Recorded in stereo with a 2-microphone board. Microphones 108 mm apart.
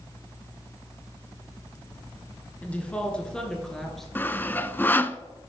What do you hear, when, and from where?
2.6 s a woman speaking: 10° left (ahead or behind), 2 m; by 4.0 s centre (ahead or behind), 3 m
4.2 s sawing: 20° left (ahead or behind), 0.5 m